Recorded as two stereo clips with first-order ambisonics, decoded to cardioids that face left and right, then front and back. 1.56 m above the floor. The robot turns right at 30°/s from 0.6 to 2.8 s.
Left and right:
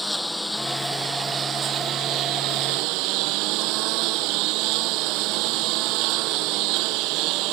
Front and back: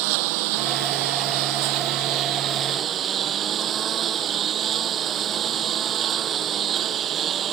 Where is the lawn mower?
175° left; by 7.5 s 120° right.